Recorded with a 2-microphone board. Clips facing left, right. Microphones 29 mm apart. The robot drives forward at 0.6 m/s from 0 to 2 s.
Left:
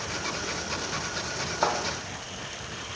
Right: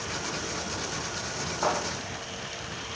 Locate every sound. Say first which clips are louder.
1.6 s a thud: left 1 dB; 25° left (ahead or behind), 2 m